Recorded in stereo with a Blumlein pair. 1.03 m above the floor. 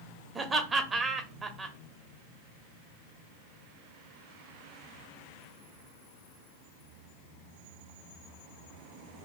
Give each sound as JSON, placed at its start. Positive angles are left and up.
{"t": 0.3, "sound": "laughter", "azimuth_deg": -15, "distance_m": 0.7}